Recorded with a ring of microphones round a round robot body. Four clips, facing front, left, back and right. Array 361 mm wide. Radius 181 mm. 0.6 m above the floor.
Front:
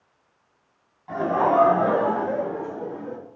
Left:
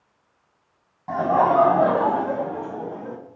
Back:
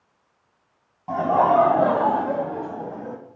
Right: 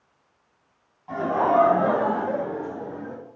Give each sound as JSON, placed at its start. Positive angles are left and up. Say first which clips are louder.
{"t": 1.1, "sound": "laughter", "louder": "left 3 dB, back 3 dB", "azimuth_deg": 140, "distance_m": 4.0}